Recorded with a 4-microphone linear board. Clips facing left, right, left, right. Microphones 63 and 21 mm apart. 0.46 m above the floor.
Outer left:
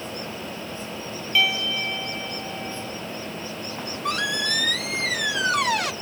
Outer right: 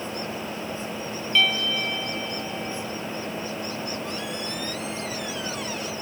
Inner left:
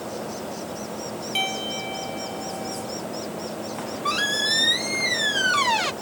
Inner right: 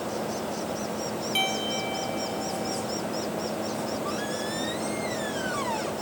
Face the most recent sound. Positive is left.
turn(degrees=70)  # may be behind; listen again after turning